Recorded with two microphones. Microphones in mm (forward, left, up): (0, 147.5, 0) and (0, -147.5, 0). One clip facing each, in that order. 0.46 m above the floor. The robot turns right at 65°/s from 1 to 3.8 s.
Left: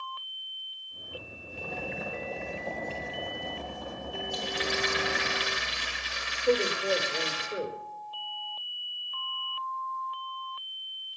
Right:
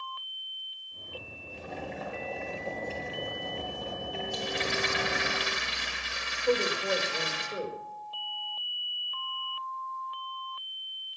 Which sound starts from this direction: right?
A rattle, at 4.3 s.